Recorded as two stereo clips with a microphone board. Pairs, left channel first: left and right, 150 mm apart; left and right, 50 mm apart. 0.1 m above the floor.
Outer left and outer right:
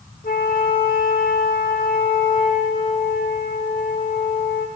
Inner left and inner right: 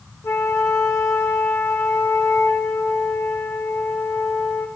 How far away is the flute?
About 1.2 m.